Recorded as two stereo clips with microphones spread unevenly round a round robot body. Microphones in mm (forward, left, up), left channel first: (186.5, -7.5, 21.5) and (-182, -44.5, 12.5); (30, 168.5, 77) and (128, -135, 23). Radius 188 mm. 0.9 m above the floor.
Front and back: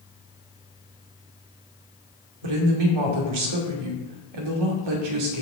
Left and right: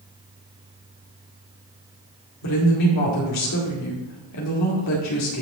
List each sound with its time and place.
2.4 s a woman speaking: 160° left, 2 m